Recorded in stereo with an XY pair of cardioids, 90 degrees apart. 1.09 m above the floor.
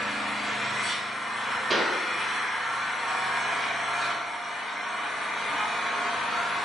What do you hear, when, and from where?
0.0 s an engine running: 5° right, 1.6 m
1.7 s a pop: 30° right, 0.6 m